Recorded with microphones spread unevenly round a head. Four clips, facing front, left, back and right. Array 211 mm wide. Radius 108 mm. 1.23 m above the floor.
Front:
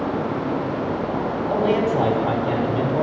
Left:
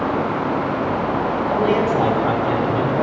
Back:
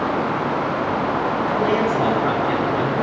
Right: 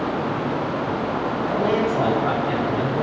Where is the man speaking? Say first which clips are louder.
Left 3 dB, front 2 dB; 35° left, 8.5 m.